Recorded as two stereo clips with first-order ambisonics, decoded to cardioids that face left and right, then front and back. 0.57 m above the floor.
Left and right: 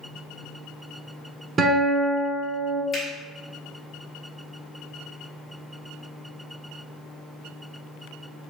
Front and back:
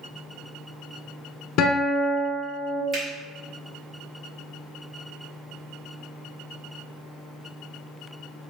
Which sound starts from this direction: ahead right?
A guitar, at 1.6 s.